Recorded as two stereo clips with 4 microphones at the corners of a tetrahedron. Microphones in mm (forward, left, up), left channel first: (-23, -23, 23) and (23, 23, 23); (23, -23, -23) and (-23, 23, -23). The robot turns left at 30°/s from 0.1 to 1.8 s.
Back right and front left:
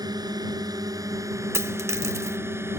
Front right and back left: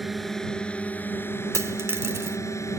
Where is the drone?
45° left; by 2.8 s 5° right.